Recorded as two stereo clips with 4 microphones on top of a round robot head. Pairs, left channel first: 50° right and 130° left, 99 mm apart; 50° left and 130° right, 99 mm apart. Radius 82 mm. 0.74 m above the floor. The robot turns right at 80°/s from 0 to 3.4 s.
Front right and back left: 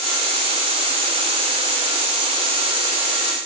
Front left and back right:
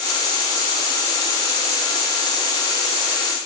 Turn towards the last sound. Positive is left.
No sound to turn to.